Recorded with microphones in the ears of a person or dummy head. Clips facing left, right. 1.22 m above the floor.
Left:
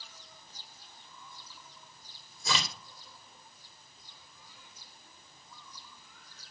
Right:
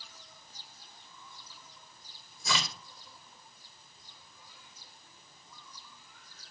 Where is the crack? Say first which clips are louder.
Even; 30° left (ahead or behind), 2.5 m.